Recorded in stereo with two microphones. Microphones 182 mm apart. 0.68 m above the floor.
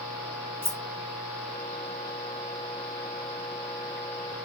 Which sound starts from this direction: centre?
Keys jangling, at 0.6 s.